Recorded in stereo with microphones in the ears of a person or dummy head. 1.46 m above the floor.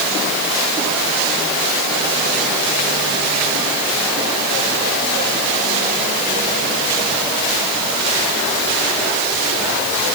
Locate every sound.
Only background noise.